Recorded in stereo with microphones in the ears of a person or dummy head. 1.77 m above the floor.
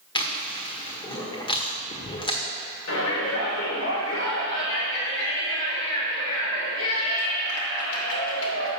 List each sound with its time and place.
0.1 s chewing: 25° left (ahead or behind), 1.5 m
2.9 s a shout: 85° left, 2.5 m